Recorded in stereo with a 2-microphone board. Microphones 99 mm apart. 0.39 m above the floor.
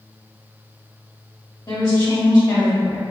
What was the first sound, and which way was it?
A woman speaking, 45° left (ahead or behind).